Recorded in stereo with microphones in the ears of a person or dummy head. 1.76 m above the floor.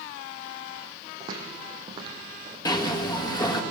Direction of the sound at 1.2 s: 25° right (ahead or behind).